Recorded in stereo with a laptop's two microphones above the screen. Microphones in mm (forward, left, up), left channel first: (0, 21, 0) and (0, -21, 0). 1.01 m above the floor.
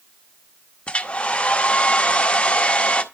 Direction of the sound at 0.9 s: 30° left (ahead or behind).